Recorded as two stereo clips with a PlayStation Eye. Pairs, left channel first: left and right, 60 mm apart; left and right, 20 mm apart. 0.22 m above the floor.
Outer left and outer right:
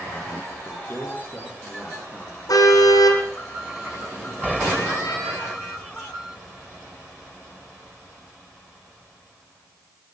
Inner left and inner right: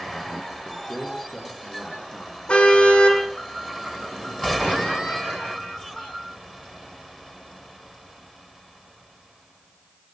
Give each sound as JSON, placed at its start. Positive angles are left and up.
{"t": 0.7, "sound": "a man speaking", "side_deg": 30, "distance_m": 8.0}
{"t": 2.5, "sound": "a car horn", "side_deg": 85, "distance_m": 5.5}